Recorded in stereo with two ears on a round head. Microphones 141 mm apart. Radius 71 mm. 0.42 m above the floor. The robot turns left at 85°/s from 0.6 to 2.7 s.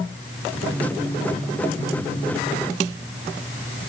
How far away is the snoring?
I don't hear snoring.